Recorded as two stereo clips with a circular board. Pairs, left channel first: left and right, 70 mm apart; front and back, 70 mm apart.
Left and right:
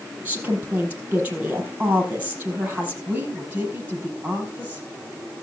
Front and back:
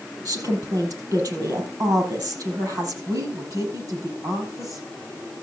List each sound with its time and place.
0.2 s a woman speaking: 160° right, 5 m
3.1 s a woman speaking: 160° right, 5 m